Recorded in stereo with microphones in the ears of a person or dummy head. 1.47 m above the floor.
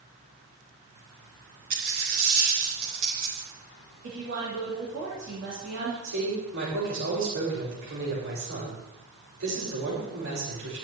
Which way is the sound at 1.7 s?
75° right (ahead or behind).